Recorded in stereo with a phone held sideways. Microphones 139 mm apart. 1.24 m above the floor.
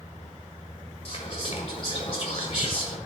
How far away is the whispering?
About 4 m.